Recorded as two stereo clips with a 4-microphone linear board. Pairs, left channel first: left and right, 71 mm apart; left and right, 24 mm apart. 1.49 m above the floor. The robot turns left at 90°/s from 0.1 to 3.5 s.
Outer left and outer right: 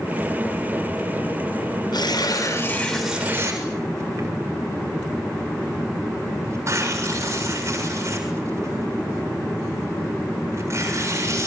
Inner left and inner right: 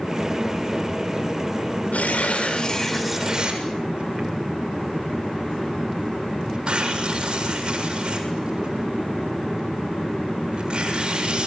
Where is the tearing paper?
80° left, 7 m; by 11.5 s 40° right (ahead or behind), 7 m.